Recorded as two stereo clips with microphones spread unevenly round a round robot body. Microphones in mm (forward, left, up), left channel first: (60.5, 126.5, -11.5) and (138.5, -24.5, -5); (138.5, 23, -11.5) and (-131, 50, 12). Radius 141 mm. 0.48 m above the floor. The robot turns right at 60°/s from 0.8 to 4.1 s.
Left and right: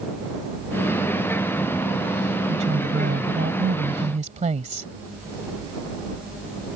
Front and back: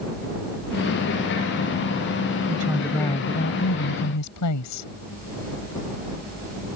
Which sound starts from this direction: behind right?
A woman speaking, at 2.5 s.